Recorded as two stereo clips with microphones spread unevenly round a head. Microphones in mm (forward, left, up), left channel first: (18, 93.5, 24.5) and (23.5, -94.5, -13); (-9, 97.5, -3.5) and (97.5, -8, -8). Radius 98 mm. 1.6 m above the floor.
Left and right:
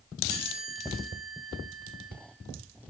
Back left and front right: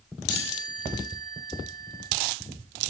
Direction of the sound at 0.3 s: 10° right.